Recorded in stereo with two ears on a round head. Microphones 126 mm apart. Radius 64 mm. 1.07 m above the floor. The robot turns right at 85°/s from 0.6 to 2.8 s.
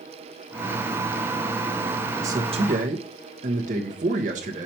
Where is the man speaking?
165° right, 1.4 m; by 4.7 s 105° right, 1.4 m.